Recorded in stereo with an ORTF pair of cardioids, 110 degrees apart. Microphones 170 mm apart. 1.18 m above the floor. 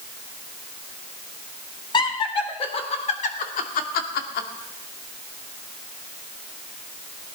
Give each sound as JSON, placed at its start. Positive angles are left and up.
{"t": 1.9, "sound": "laughter", "azimuth_deg": 30, "distance_m": 3.5}